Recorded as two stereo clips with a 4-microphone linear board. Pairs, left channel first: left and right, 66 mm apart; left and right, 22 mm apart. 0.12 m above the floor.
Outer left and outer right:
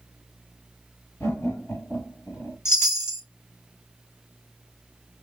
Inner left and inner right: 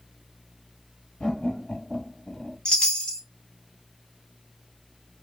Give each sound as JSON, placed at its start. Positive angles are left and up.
{"t": 1.2, "sound": "laughter", "side_deg": 35, "distance_m": 1.8}
{"t": 2.6, "sound": "a chime", "side_deg": 45, "distance_m": 1.1}